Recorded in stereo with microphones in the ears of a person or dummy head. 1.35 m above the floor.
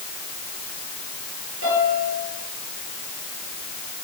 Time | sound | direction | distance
1.6 | a piano | 75° right (ahead or behind) | 7.5 m